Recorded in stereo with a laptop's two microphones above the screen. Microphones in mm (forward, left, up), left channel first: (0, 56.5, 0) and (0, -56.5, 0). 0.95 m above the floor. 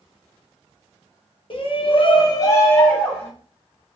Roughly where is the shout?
Left.